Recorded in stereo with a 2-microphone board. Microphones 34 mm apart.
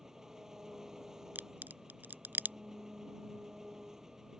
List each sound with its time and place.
0.0 s an engine running: 15° right (ahead or behind)
1.4 s a crack: 65° right (ahead or behind)